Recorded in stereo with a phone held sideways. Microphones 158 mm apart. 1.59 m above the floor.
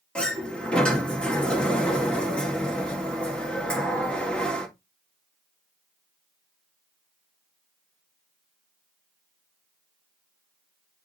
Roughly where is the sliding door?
Centre.